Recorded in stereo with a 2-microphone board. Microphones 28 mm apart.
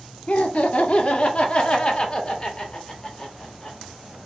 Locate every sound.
0.3 s laughter: 50° left (ahead or behind), 0.8 m; by 3.8 s 20° left (ahead or behind), 2.5 m